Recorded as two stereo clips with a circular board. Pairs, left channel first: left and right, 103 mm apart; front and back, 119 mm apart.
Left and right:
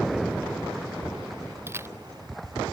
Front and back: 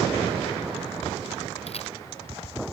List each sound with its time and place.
1.7 s a camera shutter: 25° right